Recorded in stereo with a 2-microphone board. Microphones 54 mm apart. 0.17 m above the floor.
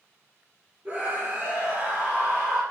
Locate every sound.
0.8 s a scream: 45° right (ahead or behind), 4 m; by 2.6 s 50° right (ahead or behind), 5.5 m